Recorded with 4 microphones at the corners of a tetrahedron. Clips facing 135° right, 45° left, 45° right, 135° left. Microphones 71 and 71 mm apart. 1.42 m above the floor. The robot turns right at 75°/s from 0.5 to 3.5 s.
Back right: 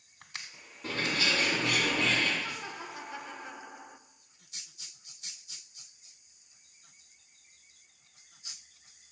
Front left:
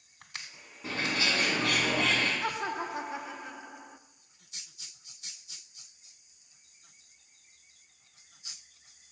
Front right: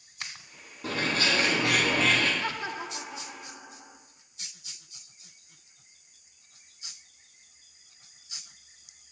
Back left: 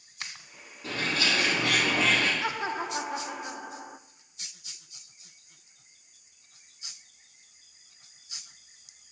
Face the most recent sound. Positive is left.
turn(degrees=140)